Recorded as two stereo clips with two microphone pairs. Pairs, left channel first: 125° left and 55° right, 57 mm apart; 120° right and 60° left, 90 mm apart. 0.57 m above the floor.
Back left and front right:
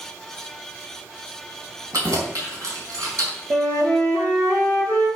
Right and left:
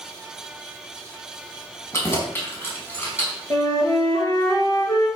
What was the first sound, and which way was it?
Keys jangling, 60° right.